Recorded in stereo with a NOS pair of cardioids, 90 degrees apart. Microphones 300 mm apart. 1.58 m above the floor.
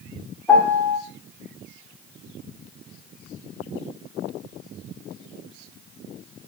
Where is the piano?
5° left, 1.2 m.